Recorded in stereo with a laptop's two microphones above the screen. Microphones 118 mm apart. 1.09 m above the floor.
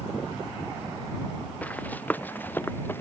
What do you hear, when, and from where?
1.6 s running footsteps: 10° left (ahead or behind); by 3.0 s 15° left (ahead or behind)